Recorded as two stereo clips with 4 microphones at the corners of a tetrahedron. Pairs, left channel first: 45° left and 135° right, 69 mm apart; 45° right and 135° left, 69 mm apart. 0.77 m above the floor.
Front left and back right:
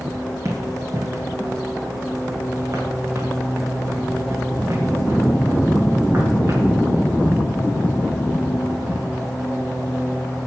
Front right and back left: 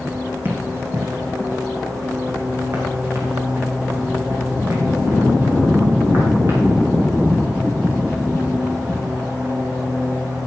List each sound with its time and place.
0.5 s running footsteps: 170° right, 1.8 m; by 6.7 s straight behind, 5.5 m